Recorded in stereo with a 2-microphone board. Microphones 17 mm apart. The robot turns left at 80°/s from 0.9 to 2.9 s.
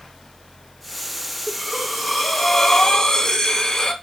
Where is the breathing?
130° right, 0.9 m; by 3.9 s 115° left, 0.9 m.